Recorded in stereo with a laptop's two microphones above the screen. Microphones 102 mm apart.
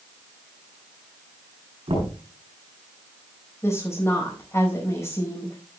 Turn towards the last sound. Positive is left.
turn(degrees=30)  # may be behind; listen again after turning